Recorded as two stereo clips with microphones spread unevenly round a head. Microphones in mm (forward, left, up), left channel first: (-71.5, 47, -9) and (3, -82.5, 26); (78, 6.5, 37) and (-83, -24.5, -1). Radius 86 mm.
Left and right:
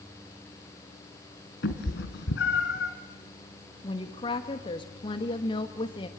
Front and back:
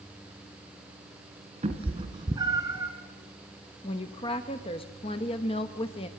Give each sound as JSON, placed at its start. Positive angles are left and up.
{"t": 1.6, "sound": "a cat meowing", "azimuth_deg": 135, "distance_m": 3.0}
{"t": 3.8, "sound": "a woman speaking", "azimuth_deg": 75, "distance_m": 1.4}